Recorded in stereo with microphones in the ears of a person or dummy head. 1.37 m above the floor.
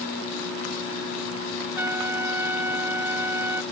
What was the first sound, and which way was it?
A trumpet, 10° right (ahead or behind).